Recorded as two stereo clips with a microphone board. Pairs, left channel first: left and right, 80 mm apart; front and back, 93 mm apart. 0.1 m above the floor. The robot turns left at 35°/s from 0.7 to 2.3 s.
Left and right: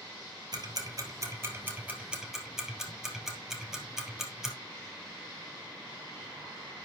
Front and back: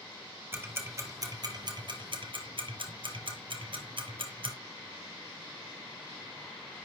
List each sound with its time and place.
0.5 s ticking: 120° right, 2.0 m; by 4.5 s 175° right, 2.0 m